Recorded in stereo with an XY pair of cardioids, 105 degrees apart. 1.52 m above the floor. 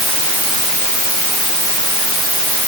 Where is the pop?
I don't hear a pop.